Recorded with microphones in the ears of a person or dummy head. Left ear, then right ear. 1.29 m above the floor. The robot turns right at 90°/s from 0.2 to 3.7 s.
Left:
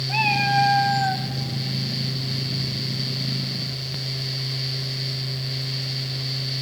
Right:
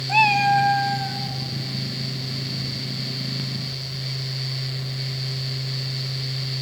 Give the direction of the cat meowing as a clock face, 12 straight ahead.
1 o'clock.